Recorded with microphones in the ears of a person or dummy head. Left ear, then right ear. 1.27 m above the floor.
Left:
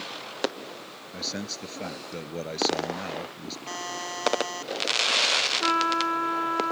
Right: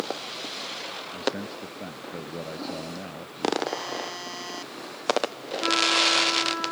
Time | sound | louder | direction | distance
1.1 | a man speaking | right 1 dB | 85° left | ?
3.7 | a buzzer | right 2 dB | 25° left (ahead or behind) | ?
5.6 | a trumpet | right 2 dB | 30° left (ahead or behind) | ?